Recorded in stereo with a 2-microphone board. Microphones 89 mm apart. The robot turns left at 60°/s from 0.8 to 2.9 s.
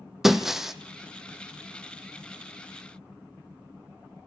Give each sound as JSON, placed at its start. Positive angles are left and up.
{"t": 0.2, "sound": "breaking glass", "side_deg": -5, "distance_m": 1.3}